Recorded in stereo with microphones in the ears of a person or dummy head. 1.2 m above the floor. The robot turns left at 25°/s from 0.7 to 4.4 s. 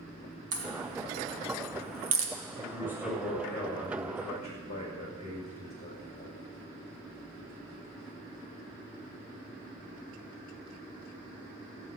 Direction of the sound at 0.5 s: 65° right (ahead or behind).